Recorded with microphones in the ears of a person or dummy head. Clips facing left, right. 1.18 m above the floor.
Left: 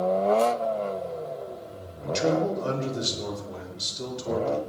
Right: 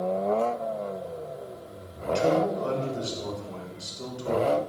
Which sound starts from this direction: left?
A man speaking, at 2.0 s.